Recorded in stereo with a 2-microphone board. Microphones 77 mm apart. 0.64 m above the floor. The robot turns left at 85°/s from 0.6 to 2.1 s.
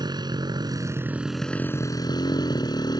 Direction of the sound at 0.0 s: 115° right.